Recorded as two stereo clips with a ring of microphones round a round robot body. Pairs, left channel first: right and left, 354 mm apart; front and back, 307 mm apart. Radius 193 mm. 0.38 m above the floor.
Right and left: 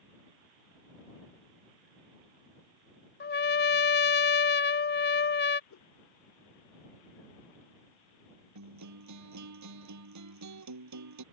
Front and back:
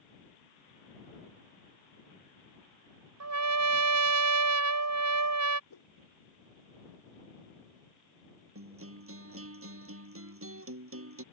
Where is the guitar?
135° left.